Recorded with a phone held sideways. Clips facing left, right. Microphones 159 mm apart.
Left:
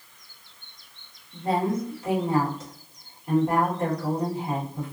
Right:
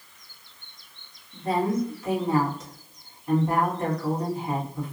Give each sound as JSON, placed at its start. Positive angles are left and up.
{"t": 1.3, "sound": "a woman speaking", "side_deg": 30, "distance_m": 1.8}